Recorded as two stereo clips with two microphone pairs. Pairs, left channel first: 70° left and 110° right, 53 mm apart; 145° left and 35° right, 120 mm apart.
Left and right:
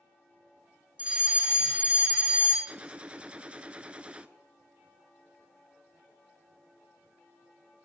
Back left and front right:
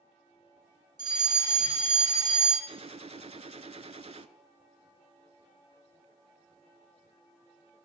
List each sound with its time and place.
1.0 s a fire alarm: 65° right, 3.5 m
2.7 s a gunshot: 45° right, 0.6 m